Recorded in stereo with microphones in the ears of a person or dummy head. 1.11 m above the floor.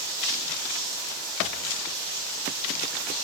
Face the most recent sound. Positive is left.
turn(degrees=-60)  # may be behind; listen again after turning